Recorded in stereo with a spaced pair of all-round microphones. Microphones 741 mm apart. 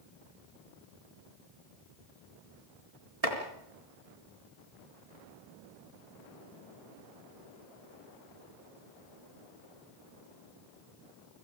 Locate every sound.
3.2 s chopping: 50° right (ahead or behind), 4 m